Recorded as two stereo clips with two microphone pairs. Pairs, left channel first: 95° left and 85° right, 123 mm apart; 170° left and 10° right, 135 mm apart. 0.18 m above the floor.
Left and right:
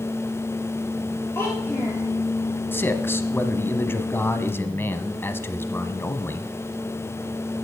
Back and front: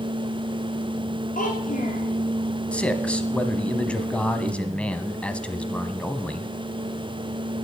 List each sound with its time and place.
1.4 s a child speaking: 165° left, 3 m
2.7 s a man speaking: 100° left, 1.2 m